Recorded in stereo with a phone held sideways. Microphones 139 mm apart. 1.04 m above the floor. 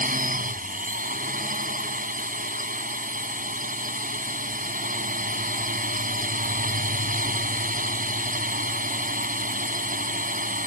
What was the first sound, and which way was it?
A drone, 80° right.